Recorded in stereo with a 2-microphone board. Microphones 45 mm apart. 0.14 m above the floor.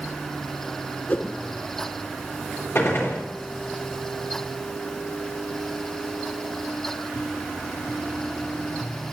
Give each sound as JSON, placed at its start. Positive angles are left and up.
{"t": 1.1, "sound": "a whoosh", "side_deg": 40, "distance_m": 0.9}
{"t": 2.8, "sound": "a gunshot", "side_deg": 50, "distance_m": 4.5}